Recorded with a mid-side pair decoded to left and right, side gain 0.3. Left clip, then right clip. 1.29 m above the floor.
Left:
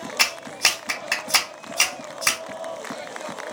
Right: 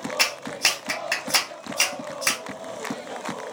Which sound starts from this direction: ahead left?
A clap, at 0.2 s.